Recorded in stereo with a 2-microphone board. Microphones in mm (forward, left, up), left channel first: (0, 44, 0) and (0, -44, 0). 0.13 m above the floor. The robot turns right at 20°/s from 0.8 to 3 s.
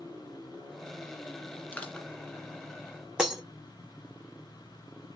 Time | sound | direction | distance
1.7 | crushing | 15° left (ahead or behind) | 1.8 m
3.2 | breaking glass | 10° right (ahead or behind) | 1.1 m